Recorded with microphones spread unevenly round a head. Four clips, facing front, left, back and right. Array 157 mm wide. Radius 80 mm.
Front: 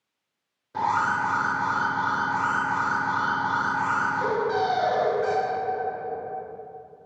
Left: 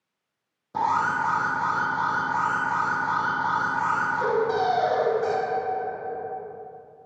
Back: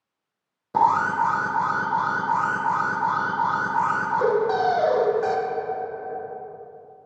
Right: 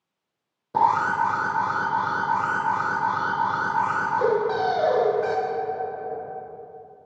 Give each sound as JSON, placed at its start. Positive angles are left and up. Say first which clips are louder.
{"t": 0.7, "sound": "an alarm", "louder": "right 3 dB, back 5 dB", "azimuth_deg": -150, "distance_m": 0.6}